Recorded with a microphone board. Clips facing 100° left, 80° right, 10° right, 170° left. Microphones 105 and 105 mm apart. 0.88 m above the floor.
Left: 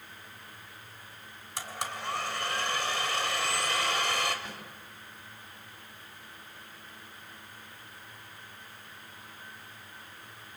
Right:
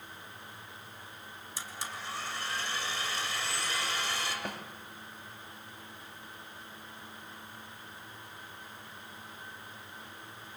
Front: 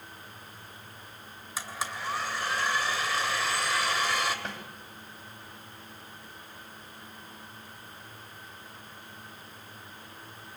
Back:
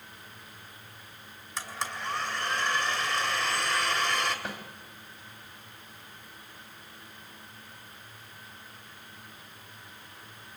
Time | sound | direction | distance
1.6 | a blender | 75° left | 2.5 m
4.5 | a snare drum | 110° right | 2 m